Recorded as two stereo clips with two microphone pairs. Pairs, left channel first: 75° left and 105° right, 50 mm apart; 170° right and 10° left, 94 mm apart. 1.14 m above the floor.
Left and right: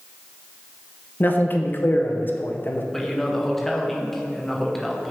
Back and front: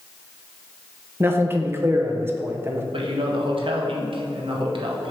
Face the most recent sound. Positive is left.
turn(degrees=-10)